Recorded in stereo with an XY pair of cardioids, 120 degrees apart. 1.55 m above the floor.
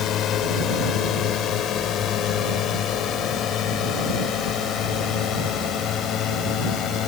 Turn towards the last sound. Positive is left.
turn(degrees=65)